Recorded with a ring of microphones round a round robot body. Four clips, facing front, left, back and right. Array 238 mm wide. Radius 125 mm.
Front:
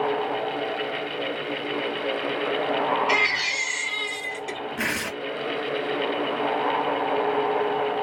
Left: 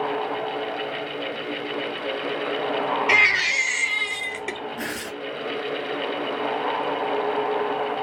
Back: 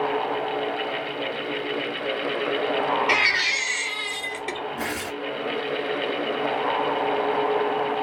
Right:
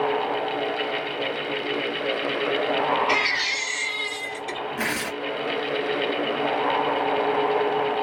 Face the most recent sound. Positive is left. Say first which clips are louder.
# right 3 dB, front 1 dB
turn(degrees=-25)